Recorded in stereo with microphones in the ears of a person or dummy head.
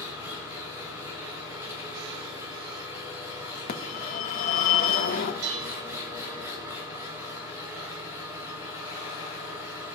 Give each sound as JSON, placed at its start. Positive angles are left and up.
{"t": 0.0, "sound": "an engine running", "side_deg": -10, "distance_m": 7.0}
{"t": 3.7, "sound": "a phone ringing", "side_deg": 55, "distance_m": 1.6}
{"t": 5.4, "sound": "dishes clattering", "side_deg": -65, "distance_m": 4.0}